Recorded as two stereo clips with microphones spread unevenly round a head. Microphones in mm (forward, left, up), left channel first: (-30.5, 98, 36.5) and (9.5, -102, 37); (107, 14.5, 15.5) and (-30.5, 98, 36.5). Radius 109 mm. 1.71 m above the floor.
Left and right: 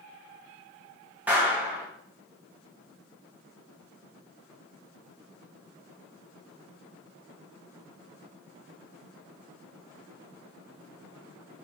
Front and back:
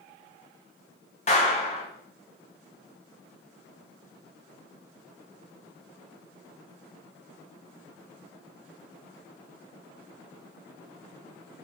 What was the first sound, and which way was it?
A clap, straight ahead.